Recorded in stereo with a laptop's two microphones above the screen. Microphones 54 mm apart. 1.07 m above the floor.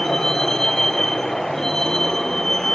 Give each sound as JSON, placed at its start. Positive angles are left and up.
{"t": 0.0, "sound": "a vehicle", "side_deg": 10}